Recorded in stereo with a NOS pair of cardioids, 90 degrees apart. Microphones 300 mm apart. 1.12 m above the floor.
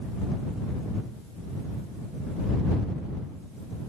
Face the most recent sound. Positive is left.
No sound to turn to.